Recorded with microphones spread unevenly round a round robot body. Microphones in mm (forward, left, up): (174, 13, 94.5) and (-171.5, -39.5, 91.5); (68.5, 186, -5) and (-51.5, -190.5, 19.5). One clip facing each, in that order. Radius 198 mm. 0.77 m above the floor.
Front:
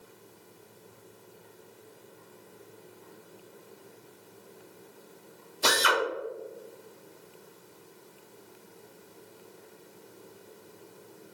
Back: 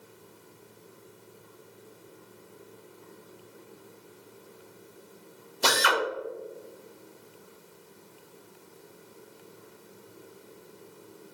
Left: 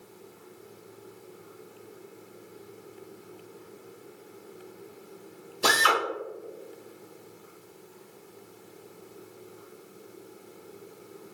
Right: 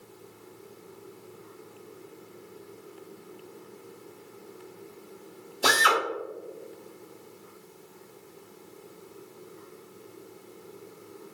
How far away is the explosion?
I don't hear an explosion.